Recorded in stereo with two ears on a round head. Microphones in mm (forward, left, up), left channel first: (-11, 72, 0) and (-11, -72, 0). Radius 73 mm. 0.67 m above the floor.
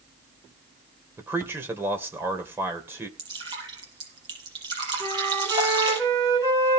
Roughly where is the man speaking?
Centre.